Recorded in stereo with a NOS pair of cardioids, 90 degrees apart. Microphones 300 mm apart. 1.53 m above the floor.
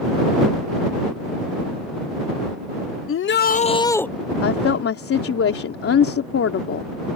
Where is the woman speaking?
50° left.